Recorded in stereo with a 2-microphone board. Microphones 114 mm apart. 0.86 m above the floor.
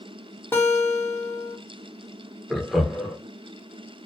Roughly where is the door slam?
I don't hear a door slam.